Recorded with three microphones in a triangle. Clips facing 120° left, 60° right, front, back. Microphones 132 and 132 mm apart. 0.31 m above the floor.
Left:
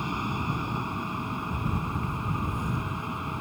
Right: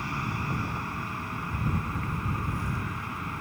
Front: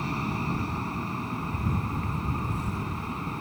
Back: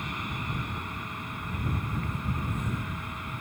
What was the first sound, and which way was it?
An aircraft, 50° left.